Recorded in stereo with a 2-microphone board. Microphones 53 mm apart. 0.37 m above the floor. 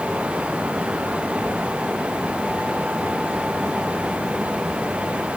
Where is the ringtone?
No ringtone in this recording.